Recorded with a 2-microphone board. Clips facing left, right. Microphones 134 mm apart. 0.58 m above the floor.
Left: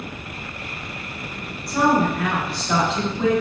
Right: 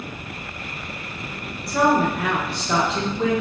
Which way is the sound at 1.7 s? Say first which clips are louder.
Even; centre (ahead or behind).